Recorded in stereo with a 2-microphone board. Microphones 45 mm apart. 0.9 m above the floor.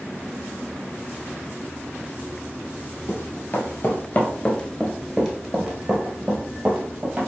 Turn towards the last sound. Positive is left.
turn(degrees=-30)  # may be behind; listen again after turning